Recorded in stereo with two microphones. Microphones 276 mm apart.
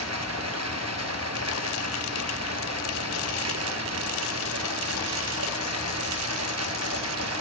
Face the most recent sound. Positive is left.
turn(degrees=-70)  # may be behind; listen again after turning